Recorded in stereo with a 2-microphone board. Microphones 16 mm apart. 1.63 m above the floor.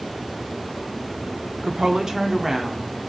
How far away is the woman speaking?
About 0.7 m.